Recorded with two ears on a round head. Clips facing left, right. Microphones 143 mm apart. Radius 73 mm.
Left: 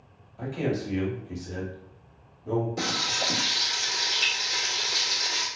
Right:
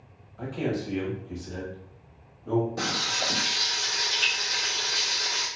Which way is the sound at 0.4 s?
15° left (ahead or behind).